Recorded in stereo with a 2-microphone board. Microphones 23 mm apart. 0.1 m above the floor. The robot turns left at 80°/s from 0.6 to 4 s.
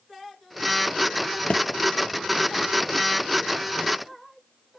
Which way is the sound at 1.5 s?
65° left (ahead or behind).